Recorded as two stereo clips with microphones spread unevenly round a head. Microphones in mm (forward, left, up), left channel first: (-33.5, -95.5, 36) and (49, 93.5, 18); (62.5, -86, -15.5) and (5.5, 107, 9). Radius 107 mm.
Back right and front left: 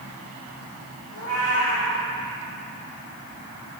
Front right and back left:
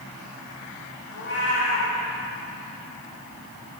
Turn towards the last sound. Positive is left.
turn(degrees=-110)